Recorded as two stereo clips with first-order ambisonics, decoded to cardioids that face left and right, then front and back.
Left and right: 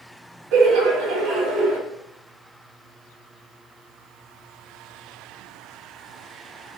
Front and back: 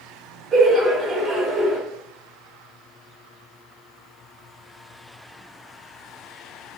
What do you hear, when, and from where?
0.5 s laughter: 120° right, 0.9 m